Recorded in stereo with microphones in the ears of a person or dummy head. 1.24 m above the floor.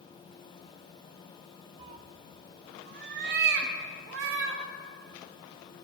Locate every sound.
1.8 s a cat meowing: 30° right (ahead or behind), 0.6 m; by 4.6 s 75° right (ahead or behind), 2 m